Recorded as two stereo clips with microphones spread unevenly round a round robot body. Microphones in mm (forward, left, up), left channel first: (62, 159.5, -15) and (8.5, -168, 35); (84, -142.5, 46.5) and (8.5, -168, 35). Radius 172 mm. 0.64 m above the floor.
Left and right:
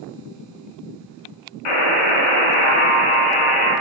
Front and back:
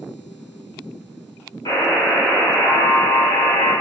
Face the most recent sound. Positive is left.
turn(degrees=90)